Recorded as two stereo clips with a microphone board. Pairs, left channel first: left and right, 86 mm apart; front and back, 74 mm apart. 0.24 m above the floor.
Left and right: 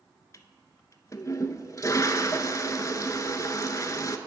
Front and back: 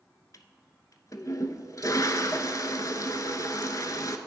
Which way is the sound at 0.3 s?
40° left.